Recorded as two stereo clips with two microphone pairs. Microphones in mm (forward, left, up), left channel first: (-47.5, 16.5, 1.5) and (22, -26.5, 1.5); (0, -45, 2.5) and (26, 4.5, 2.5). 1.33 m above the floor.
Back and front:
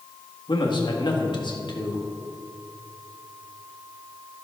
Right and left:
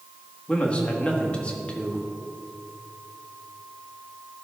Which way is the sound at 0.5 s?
175° left.